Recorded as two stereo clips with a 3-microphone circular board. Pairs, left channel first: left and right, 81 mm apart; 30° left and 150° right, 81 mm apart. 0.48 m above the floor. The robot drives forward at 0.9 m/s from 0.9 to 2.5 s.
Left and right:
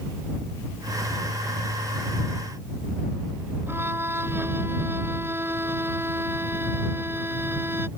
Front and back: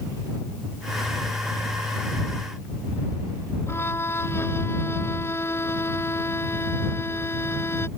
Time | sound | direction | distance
3.7 | a violin | 25° right | ?